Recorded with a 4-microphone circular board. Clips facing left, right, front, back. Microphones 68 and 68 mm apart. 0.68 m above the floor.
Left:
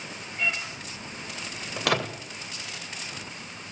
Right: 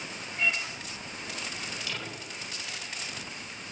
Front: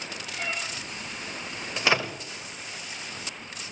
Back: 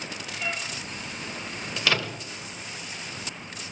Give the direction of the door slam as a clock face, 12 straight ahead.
10 o'clock.